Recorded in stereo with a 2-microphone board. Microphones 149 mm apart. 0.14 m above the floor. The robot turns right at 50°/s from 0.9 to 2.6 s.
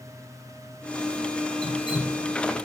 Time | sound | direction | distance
1.6 | dripping | 125° left | 1.9 m